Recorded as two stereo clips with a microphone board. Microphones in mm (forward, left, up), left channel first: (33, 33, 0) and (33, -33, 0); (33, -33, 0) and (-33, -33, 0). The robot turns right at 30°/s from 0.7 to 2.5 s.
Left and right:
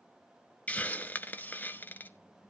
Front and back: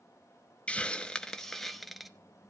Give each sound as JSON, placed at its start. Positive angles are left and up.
{"t": 0.7, "sound": "a hiss", "azimuth_deg": 55, "distance_m": 0.6}